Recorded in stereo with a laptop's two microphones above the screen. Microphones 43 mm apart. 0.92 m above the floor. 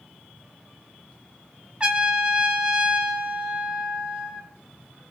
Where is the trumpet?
25° right (ahead or behind), 0.6 m.